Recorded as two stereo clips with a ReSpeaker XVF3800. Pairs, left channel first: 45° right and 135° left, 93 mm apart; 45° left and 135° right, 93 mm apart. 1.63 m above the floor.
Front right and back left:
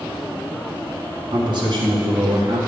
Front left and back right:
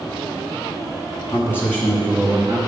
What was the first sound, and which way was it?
A man speaking, 100° left.